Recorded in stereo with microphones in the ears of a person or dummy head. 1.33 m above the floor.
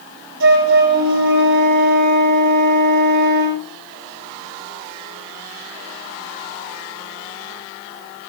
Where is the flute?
60° right (ahead or behind), 7.5 m.